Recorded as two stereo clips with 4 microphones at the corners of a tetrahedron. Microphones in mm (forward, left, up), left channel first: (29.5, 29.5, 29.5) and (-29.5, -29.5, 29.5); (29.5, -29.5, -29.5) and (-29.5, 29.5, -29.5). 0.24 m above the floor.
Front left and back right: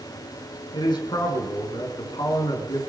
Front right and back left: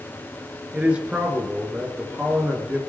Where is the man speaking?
60° left, 3.5 m.